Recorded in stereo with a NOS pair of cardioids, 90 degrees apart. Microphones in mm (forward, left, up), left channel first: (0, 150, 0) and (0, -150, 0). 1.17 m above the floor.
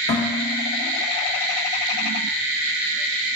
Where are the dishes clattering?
60° left, 1.4 m.